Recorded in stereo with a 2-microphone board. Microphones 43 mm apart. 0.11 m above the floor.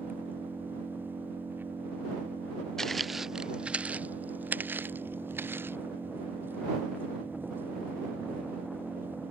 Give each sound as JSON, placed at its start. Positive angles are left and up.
{"t": 0.0, "sound": "an engine running", "side_deg": -55}
{"t": 2.8, "sound": "footsteps", "side_deg": 10}